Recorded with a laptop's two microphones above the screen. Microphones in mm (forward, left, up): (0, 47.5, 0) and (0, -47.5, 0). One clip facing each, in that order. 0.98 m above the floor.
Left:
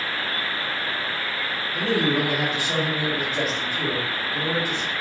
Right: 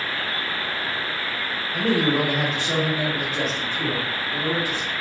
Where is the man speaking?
45° right (ahead or behind), 0.9 m; by 4.9 s 25° left (ahead or behind), 1.5 m.